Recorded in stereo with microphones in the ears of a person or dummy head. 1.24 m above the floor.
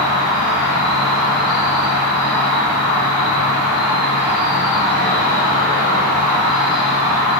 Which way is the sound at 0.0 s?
5° right (ahead or behind).